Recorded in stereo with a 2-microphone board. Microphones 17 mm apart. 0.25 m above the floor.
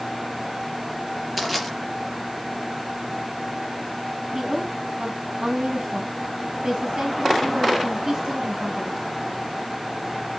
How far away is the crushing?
About 4 m.